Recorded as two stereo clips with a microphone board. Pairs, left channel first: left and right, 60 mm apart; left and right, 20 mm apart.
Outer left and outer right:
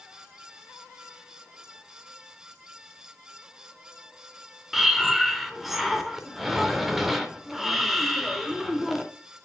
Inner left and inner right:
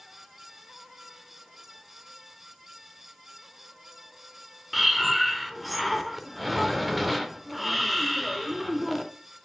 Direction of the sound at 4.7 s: Centre (ahead or behind).